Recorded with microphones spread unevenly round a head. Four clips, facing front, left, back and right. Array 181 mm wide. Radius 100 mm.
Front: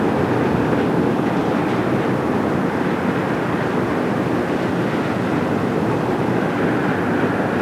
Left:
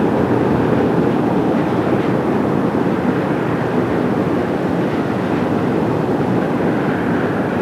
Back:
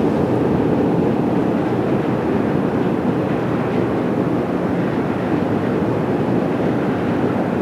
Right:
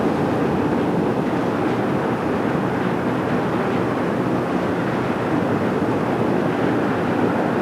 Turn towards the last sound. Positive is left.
No sound to turn to.